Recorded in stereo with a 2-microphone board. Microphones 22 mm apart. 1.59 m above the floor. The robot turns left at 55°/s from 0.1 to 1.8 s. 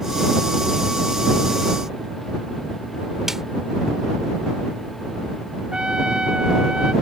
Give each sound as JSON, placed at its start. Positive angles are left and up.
{"t": 3.3, "sound": "a snare drum", "side_deg": -20}
{"t": 5.7, "sound": "a trumpet", "side_deg": -50}